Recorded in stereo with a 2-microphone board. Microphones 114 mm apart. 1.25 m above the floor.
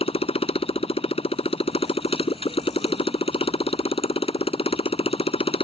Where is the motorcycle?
60° left (ahead or behind).